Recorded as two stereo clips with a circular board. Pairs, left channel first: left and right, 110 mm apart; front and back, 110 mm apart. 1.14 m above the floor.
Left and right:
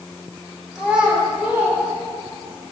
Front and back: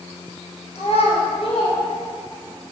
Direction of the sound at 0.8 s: 5° right.